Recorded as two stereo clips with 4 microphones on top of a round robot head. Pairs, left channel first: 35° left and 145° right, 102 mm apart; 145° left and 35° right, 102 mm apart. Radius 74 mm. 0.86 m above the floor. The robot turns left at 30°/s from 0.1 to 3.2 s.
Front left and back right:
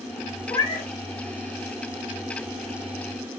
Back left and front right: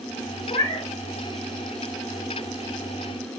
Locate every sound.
0.5 s a cat meowing: 95° left, 0.8 m; by 0.9 s 80° left, 0.8 m